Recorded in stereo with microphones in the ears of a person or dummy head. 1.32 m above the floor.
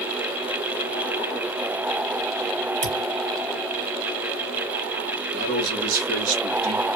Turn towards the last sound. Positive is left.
turn(degrees=-70)  # may be behind; listen again after turning